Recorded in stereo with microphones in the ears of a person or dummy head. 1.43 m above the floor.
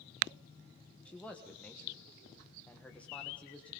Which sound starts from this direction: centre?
A man speaking, at 1.1 s.